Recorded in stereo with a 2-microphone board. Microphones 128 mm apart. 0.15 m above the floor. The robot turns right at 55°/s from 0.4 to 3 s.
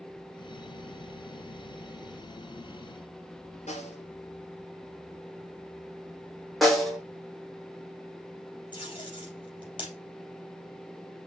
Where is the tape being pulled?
40° left (ahead or behind), 4 m.